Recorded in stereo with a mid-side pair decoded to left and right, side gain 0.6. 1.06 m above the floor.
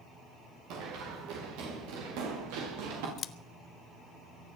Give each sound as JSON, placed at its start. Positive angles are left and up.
{"t": 0.7, "sound": "running footsteps", "azimuth_deg": -70, "distance_m": 7.5}
{"t": 3.2, "sound": "scissors", "azimuth_deg": 50, "distance_m": 0.9}